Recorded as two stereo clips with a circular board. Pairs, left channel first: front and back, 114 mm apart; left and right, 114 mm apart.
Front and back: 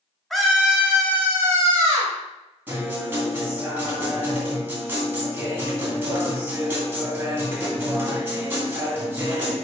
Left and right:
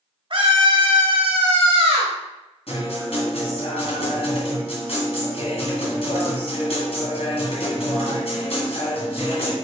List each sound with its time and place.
0.3 s a scream: 85° right, 1.6 m; by 2.1 s 120° right, 3 m
2.7 s a guitar: 110° left, 2.5 m